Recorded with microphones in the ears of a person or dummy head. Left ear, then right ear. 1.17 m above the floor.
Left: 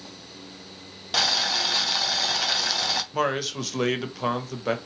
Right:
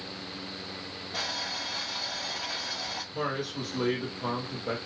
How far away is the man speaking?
About 0.8 m.